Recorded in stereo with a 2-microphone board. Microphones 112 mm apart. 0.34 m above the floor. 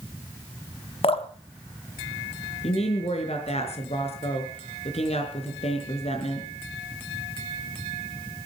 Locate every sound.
1.0 s dripping: 60° left (ahead or behind), 1.4 m
2.6 s a woman speaking: 65° left (ahead or behind), 5 m